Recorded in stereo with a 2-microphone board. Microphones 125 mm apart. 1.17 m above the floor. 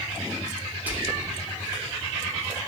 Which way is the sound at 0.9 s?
15° right (ahead or behind).